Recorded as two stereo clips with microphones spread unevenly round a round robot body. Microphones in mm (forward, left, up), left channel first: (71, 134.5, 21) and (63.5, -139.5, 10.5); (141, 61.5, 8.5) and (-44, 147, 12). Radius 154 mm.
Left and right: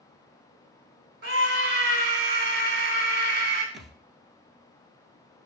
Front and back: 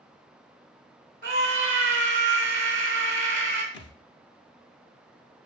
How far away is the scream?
About 3 m.